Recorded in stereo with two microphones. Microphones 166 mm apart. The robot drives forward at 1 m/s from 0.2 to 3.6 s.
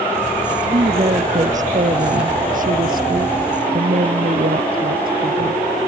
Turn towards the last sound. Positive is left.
turn(degrees=-65)  # may be behind; listen again after turning